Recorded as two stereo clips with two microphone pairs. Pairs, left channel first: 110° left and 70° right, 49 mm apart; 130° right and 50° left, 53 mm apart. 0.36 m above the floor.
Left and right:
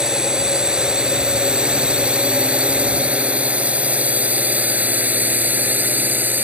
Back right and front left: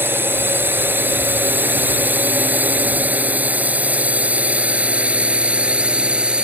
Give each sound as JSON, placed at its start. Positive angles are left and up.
{"t": 0.0, "sound": "a drone", "azimuth_deg": 5}